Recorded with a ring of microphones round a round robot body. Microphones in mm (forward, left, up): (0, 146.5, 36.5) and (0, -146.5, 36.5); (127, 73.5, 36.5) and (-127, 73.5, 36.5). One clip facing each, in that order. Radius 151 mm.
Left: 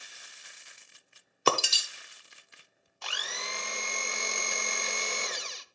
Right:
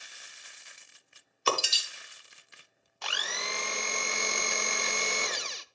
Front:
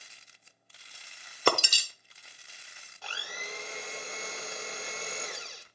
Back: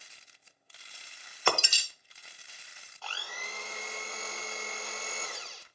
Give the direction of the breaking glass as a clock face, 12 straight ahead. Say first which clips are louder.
Left 3 dB, front 4 dB; 10 o'clock.